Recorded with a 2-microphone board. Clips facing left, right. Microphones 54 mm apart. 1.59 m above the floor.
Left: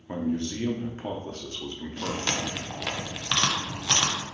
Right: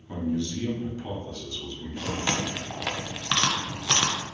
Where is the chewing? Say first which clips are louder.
Right 1 dB; 10° right (ahead or behind), 0.5 m.